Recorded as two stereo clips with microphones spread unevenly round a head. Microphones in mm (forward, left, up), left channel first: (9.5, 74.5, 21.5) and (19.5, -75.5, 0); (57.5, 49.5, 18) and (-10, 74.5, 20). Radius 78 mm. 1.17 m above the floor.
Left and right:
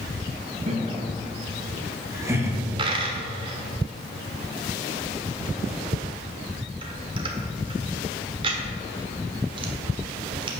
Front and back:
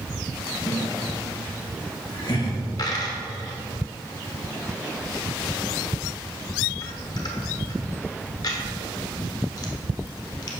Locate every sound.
0.7 s laughter: 50° right, 1.5 m; by 2.6 s 15° right, 2.0 m
2.8 s a dropped coin: 30° right, 1.0 m